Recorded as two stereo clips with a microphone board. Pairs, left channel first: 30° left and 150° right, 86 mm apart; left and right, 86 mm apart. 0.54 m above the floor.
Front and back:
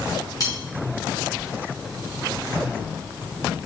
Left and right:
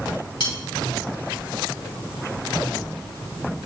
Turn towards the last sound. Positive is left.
turn(degrees=75)